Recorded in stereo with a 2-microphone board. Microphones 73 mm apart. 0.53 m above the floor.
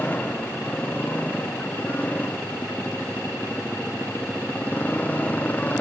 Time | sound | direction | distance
0.0 | a motorcycle | 20° left (ahead or behind) | ?